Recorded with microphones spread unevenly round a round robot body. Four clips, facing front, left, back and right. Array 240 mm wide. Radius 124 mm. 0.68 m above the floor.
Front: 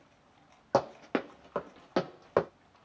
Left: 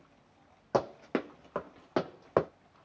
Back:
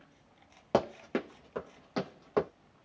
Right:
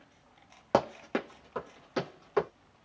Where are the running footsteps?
175° left, 0.6 m; by 2.5 s 55° left, 1.6 m.